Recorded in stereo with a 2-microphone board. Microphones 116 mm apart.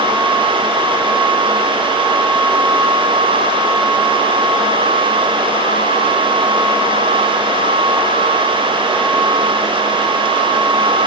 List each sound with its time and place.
Only background noise.